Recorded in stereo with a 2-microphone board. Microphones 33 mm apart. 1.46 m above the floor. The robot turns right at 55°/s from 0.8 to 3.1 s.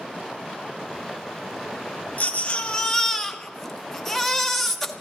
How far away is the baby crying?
About 1.2 m.